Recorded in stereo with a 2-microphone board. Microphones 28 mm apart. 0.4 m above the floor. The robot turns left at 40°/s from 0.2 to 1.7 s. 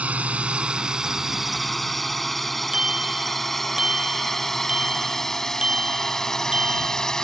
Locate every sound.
0.0 s a drone: 60° right (ahead or behind); by 7.2 s 20° left (ahead or behind)
2.7 s a bicycle bell: 35° right (ahead or behind)